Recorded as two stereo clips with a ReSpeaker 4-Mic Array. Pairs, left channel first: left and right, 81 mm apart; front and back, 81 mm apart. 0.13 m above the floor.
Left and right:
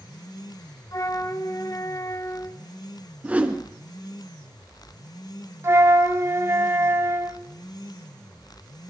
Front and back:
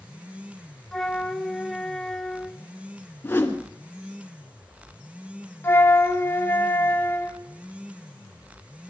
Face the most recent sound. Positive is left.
turn(degrees=-50)